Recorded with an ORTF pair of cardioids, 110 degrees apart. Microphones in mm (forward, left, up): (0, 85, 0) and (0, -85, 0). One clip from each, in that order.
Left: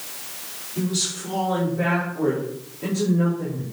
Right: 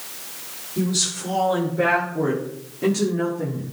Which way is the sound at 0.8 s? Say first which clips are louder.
Right 2 dB; 25° right.